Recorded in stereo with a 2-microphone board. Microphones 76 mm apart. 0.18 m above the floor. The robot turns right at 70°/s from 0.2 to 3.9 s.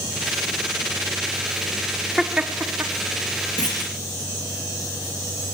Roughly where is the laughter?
Centre.